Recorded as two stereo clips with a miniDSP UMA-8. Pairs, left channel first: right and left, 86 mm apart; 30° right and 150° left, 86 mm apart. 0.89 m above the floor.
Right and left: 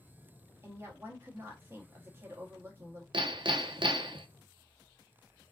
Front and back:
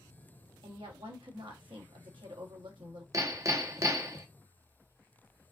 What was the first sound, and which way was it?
A woman speaking, 150° left.